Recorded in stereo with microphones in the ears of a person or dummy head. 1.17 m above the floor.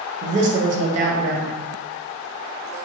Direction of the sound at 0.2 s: 40° right (ahead or behind).